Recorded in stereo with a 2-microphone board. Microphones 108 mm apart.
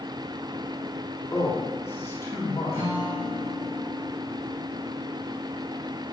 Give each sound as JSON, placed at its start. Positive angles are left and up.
{"t": 1.3, "sound": "a man speaking", "side_deg": 20, "distance_m": 1.8}
{"t": 2.7, "sound": "a guitar", "side_deg": -30, "distance_m": 3.5}